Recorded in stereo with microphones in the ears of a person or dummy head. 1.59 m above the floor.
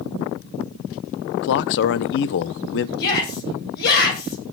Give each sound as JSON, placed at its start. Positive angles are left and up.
{"t": 1.4, "sound": "a man speaking", "side_deg": 55, "distance_m": 0.7}
{"t": 3.0, "sound": "a shout", "side_deg": 55, "distance_m": 8.5}